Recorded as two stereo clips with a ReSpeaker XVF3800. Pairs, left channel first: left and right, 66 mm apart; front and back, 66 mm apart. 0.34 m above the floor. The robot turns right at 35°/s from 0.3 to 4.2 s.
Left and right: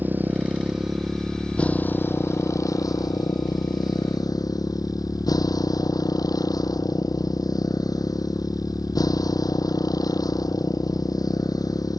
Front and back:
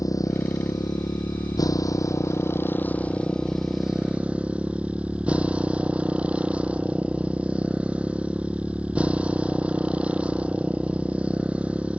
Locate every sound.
0.0 s a motorcycle: 30° right; by 12.0 s 110° left